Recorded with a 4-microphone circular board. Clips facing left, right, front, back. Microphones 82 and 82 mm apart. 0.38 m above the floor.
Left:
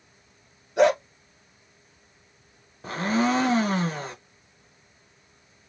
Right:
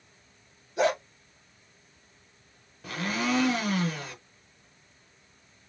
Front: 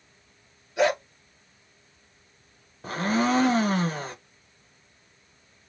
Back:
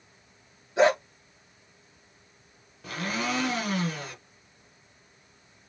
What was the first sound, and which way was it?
A dog barking, 120° left.